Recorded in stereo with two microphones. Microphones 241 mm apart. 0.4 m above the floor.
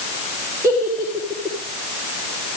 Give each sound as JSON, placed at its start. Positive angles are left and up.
{"t": 0.6, "sound": "a giggle", "side_deg": -10, "distance_m": 5.5}